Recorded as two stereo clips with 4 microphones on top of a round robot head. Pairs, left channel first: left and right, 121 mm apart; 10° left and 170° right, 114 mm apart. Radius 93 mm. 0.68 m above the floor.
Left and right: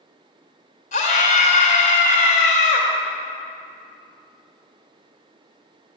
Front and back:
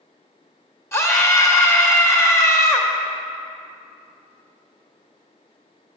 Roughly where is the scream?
Left.